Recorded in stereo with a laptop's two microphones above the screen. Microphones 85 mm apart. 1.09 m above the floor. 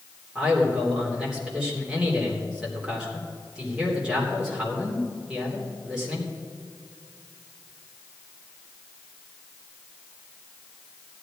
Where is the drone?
No drone in this recording.